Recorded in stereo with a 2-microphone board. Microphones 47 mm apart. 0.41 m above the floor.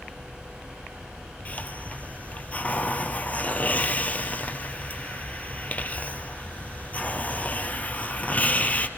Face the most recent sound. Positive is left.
turn(degrees=30)  # may be behind; listen again after turning